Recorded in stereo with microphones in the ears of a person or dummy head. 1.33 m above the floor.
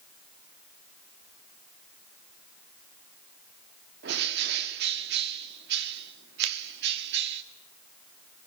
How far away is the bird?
About 2 m.